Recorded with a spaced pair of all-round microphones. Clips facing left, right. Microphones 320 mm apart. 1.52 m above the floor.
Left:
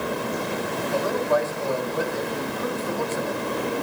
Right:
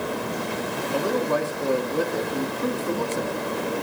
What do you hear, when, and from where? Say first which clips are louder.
0.9 s a man speaking: even; 40° right (ahead or behind), 2.5 m